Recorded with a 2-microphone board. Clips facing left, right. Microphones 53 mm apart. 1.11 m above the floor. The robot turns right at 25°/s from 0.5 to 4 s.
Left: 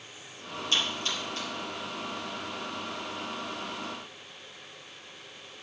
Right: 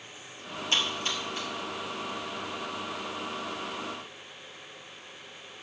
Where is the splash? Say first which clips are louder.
Right 1 dB; 35° right (ahead or behind), 4.5 m; by 1.5 s 15° right (ahead or behind), 4.5 m.